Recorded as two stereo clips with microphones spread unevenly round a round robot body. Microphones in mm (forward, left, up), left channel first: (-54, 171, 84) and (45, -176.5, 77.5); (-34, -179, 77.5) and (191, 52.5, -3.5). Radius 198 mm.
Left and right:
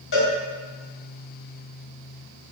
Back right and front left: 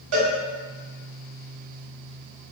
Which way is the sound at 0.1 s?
50° left.